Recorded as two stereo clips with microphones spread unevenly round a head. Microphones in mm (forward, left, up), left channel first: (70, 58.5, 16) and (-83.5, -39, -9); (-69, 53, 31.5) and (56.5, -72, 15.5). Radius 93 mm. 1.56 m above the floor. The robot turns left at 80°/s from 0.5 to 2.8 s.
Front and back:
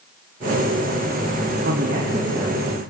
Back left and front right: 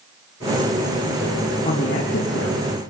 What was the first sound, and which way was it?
A man speaking, 165° right.